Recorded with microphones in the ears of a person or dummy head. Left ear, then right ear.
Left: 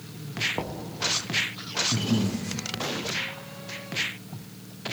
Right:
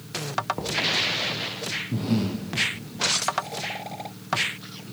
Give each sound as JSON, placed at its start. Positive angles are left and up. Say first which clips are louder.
{"t": 0.6, "sound": "knocking", "louder": "right 8 dB", "side_deg": 15, "distance_m": 0.9}
{"t": 1.9, "sound": "breathing", "louder": "left 1 dB", "side_deg": -20, "distance_m": 0.8}